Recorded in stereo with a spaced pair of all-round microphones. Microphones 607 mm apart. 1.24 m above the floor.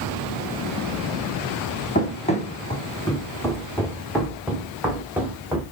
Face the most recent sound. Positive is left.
turn(degrees=-5)  # may be behind; listen again after turning